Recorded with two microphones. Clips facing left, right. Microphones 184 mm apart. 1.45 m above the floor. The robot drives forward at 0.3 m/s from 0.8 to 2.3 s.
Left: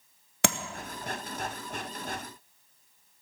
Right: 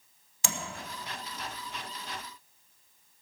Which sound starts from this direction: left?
Tapping, at 0.4 s.